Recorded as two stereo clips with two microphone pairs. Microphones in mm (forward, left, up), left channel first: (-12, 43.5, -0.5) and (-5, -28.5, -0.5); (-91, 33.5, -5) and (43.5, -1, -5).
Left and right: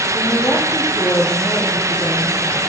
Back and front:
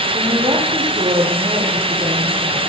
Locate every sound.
0.1 s a woman speaking: 55° left, 8.5 m